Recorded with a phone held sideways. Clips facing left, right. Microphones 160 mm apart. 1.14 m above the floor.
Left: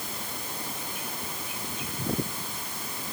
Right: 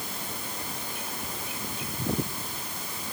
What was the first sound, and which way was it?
Only background noise.